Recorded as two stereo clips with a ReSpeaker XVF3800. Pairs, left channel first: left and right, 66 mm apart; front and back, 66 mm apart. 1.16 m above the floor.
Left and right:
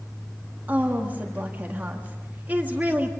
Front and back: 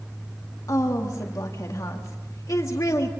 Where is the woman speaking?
30° right, 1.9 m.